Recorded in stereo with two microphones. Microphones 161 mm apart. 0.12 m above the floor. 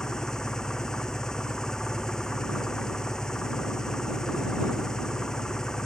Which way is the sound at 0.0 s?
5° left (ahead or behind).